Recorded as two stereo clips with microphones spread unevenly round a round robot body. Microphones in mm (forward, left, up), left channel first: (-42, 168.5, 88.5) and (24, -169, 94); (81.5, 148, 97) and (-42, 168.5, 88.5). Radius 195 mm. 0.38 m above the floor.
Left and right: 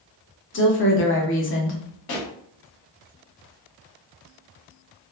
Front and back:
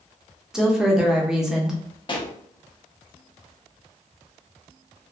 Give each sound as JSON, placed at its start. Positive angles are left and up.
{"t": 0.5, "sound": "a woman speaking", "azimuth_deg": 95, "distance_m": 0.9}
{"t": 2.1, "sound": "a pop", "azimuth_deg": 45, "distance_m": 0.6}